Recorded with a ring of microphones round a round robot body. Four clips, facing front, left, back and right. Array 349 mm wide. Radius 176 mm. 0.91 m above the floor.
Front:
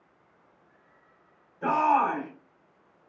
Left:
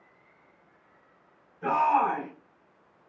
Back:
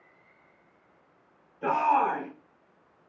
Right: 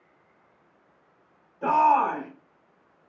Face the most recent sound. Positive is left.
turn(degrees=-75)